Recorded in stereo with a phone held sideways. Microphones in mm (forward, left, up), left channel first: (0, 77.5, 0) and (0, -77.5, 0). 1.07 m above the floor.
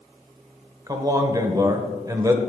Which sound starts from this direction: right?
A man speaking, at 0.9 s.